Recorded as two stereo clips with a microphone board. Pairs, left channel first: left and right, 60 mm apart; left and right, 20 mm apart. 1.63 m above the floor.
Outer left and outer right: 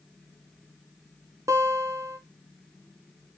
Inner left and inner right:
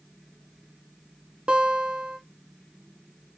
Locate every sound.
1.5 s a guitar: 60° right (ahead or behind), 0.6 m